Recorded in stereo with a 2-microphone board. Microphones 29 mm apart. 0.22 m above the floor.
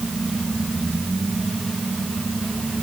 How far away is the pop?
I don't hear a pop.